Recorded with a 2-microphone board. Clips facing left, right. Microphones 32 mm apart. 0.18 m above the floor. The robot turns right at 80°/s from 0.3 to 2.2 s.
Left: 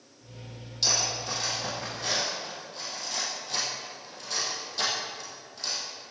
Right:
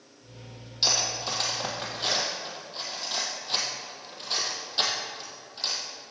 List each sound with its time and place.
0.8 s cutlery clinking: 25° right (ahead or behind), 3 m; by 5.8 s 40° right (ahead or behind), 3 m